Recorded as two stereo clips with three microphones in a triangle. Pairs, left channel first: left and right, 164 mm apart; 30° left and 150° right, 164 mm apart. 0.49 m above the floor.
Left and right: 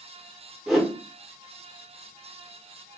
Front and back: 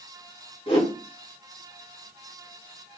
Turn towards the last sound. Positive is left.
turn(degrees=-5)